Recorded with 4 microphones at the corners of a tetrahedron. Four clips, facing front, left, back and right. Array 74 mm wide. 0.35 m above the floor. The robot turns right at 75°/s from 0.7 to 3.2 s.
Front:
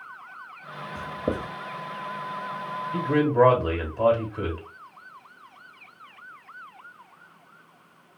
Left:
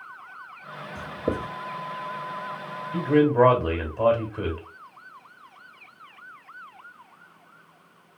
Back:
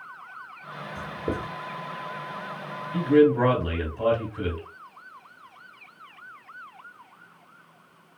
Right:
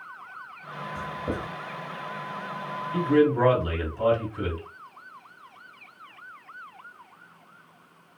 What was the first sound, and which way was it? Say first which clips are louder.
Writing: left 4 dB, front 2 dB; 10° left.